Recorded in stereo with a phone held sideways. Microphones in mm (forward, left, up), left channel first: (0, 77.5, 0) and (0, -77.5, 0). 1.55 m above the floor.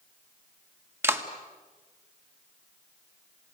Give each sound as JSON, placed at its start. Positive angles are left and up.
{"t": 1.0, "sound": "a clap", "side_deg": -15, "distance_m": 1.7}